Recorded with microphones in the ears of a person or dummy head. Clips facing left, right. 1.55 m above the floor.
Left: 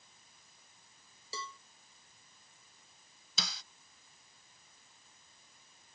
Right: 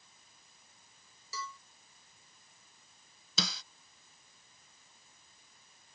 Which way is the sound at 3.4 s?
70° right (ahead or behind).